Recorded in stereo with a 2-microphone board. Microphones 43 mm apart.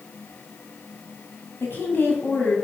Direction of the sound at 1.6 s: 55° left (ahead or behind).